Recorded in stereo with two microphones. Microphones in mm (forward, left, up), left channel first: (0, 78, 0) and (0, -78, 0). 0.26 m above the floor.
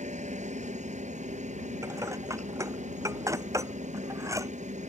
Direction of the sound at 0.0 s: 50° right (ahead or behind).